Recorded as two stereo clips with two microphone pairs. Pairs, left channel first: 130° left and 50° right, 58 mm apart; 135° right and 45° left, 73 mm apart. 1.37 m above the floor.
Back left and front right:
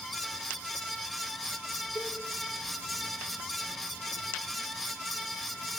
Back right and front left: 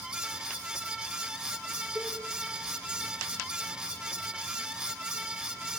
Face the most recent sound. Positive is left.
turn(degrees=115)